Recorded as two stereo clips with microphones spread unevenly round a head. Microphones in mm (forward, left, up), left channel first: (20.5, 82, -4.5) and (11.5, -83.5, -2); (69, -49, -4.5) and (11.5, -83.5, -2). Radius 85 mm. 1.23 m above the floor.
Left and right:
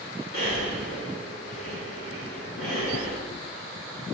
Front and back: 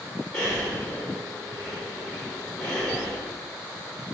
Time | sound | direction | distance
0.3 | breathing | 105° left | 2.5 m